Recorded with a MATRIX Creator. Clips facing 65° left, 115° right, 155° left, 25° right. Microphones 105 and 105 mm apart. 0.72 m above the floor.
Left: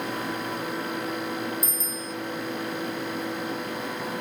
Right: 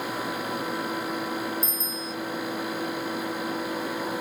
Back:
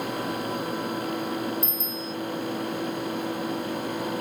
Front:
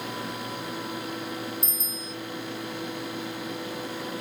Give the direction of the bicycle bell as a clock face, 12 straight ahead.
6 o'clock.